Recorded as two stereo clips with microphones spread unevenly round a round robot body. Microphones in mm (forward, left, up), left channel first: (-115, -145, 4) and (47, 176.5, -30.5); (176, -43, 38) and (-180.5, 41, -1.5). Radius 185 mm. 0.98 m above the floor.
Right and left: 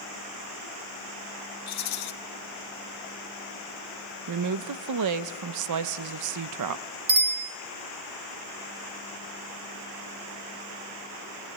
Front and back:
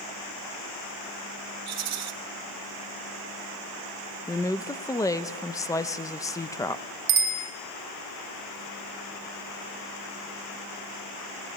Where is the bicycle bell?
125° left, 2.5 m.